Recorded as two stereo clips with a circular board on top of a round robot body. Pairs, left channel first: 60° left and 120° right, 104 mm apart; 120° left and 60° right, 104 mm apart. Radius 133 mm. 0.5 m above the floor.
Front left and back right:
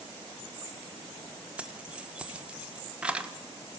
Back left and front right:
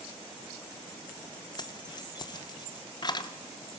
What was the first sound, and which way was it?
Keys jangling, 160° left.